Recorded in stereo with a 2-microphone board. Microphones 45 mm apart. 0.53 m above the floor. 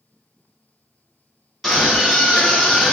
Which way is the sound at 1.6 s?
5° right (ahead or behind).